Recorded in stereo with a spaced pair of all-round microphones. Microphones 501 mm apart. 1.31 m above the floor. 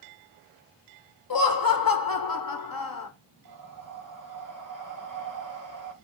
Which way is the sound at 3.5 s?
35° right (ahead or behind).